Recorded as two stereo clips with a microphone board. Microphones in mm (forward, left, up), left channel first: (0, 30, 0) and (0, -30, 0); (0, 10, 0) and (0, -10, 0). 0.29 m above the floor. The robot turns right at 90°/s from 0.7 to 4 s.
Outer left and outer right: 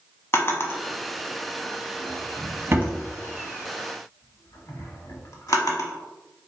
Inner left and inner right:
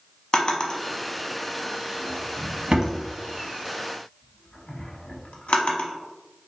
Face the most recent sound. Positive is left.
turn(degrees=65)  # may be behind; listen again after turning